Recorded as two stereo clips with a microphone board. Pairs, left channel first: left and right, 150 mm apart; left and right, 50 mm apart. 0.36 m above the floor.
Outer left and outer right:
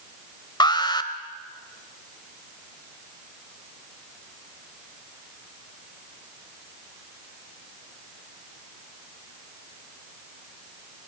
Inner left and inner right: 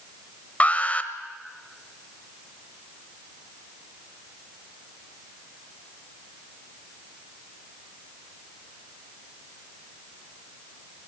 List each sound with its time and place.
0.6 s an alarm: 30° left (ahead or behind), 1.0 m